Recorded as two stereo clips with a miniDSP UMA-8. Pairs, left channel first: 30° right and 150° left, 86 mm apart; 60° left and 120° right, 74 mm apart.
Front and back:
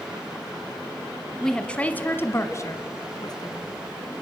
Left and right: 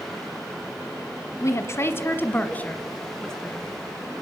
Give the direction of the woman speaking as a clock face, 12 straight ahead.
10 o'clock.